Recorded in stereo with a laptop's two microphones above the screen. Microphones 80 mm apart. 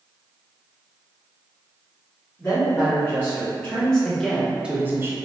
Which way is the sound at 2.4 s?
25° left (ahead or behind).